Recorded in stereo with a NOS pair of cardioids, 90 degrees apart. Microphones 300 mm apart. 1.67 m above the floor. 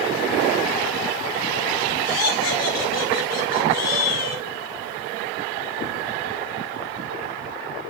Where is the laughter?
55° left, 5.5 m; by 4.4 s 60° left, 3.5 m.